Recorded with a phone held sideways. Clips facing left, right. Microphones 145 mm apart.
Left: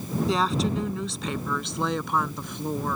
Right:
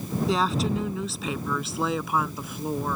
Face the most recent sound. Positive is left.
turn(degrees=-5)  # may be behind; listen again after turning